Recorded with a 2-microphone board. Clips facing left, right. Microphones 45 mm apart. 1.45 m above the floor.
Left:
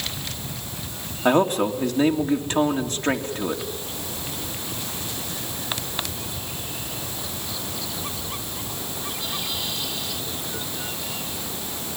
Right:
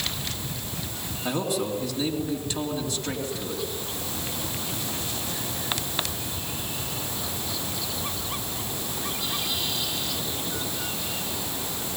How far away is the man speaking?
About 2.5 m.